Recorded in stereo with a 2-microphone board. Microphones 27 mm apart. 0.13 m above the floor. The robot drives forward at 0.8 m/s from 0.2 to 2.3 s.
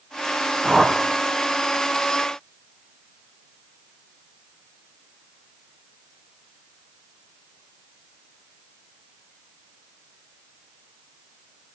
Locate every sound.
0.6 s a whoosh: 10° right (ahead or behind), 1.0 m